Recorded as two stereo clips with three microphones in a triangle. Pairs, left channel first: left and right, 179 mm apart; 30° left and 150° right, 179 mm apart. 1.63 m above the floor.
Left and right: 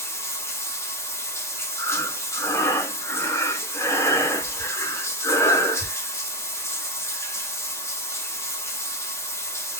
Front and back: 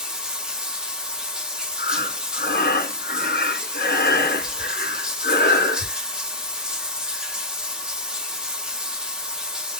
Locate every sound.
0.0 s running water: 135° left, 1.1 m
1.8 s breathing: 20° left, 0.8 m